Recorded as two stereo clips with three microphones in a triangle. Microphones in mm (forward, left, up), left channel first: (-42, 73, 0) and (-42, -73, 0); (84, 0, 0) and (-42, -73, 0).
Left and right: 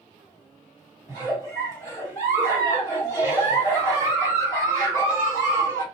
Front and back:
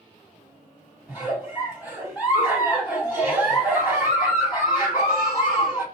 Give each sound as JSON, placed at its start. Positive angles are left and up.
{"t": 1.1, "sound": "a giggle", "azimuth_deg": 140, "distance_m": 1.9}